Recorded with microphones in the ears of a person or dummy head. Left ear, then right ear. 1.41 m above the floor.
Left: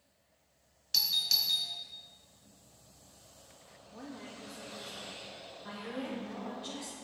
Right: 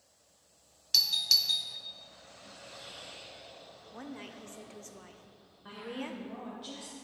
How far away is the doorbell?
About 0.7 m.